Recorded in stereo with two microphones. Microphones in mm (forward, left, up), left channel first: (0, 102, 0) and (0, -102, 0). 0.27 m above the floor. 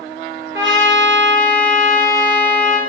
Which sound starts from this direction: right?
A trumpet, at 0.5 s.